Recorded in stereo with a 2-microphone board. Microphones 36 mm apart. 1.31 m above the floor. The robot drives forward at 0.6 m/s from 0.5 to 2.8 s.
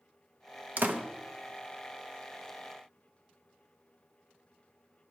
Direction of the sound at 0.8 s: 50° right (ahead or behind).